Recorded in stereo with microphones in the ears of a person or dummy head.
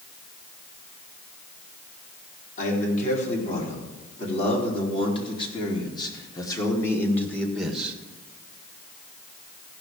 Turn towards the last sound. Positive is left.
turn(degrees=-10)  # may be behind; listen again after turning